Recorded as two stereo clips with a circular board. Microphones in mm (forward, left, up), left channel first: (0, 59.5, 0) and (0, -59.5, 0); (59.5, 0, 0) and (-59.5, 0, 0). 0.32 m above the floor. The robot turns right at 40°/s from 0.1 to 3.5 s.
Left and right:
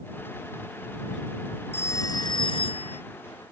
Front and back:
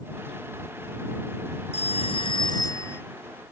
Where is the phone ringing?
20° left; by 3.0 s 70° left.